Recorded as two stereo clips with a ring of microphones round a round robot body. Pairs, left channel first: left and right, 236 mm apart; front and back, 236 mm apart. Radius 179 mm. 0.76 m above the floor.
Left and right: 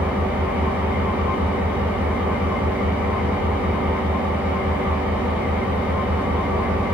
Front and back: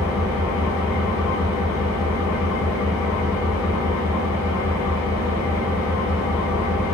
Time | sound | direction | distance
0.0 | an engine running | 5° right | 1.6 m